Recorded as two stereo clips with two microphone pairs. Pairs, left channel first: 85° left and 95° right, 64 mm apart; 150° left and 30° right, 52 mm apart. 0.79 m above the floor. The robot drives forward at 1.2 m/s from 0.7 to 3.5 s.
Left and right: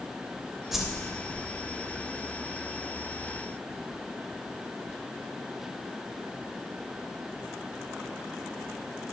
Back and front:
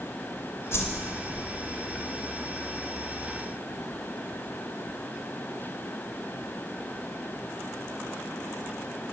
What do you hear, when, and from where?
0.7 s a whoosh: straight behind, 2 m